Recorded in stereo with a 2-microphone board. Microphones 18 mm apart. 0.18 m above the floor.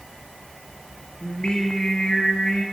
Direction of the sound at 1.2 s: 65° left (ahead or behind).